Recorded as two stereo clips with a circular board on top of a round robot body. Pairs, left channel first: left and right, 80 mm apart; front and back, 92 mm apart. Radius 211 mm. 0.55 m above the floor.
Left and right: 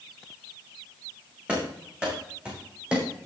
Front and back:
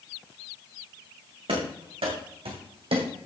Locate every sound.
1.5 s running footsteps: 165° right, 4.5 m; by 3.3 s 170° right, 1.9 m